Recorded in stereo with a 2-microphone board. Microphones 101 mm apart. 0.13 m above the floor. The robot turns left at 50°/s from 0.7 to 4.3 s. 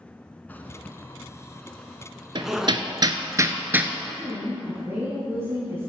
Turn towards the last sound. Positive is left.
turn(degrees=-25)  # may be behind; listen again after turning